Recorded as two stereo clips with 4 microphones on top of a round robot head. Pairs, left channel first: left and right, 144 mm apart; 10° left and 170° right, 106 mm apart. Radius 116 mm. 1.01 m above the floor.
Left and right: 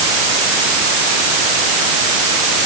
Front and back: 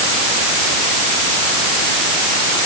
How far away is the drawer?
No drawer in this recording.